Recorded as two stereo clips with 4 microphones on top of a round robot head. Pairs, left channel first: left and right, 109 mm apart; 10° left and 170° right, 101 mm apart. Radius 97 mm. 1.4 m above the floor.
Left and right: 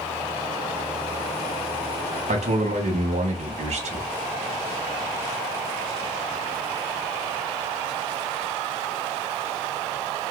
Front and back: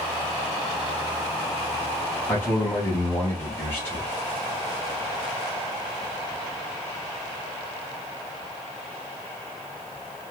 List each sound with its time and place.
2.3 s a man speaking: 65° right, 1.2 m